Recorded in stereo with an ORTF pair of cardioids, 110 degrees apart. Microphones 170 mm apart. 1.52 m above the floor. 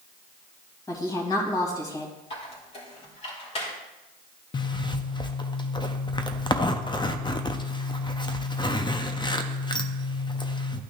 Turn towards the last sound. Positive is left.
turn(degrees=30)